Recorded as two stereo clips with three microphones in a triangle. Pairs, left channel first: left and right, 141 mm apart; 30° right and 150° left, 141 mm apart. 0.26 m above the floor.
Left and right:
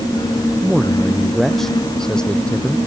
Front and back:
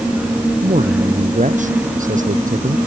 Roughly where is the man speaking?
Behind.